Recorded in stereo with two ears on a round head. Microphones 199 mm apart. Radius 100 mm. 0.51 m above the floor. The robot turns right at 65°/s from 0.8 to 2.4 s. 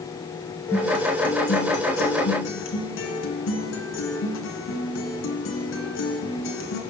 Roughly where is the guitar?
Ahead.